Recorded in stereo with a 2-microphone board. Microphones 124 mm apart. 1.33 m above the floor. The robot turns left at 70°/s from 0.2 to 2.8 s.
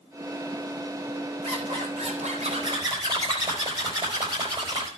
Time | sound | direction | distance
1.4 | a zipper | 50° right | 4.5 m